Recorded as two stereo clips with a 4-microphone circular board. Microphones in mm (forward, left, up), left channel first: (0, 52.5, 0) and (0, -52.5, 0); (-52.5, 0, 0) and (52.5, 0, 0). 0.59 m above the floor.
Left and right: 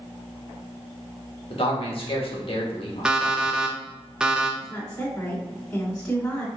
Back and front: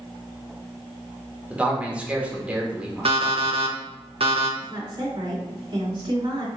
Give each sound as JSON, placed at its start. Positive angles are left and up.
{"t": 1.5, "sound": "a man speaking", "azimuth_deg": 75, "distance_m": 1.3}
{"t": 3.0, "sound": "an alarm clock", "azimuth_deg": -10, "distance_m": 0.7}
{"t": 4.6, "sound": "a woman speaking", "azimuth_deg": 15, "distance_m": 2.5}